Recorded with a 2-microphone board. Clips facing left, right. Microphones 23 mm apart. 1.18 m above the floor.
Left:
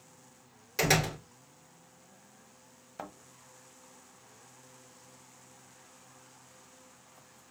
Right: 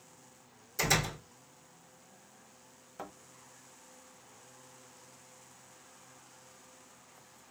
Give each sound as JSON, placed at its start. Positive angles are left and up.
{"t": 0.8, "sound": "a door slam", "side_deg": 50, "distance_m": 3.0}
{"t": 3.0, "sound": "a thud", "side_deg": 20, "distance_m": 1.2}